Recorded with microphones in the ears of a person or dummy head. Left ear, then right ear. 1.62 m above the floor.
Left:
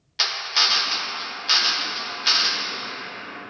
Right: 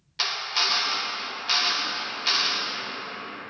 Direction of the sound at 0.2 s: 15° left (ahead or behind).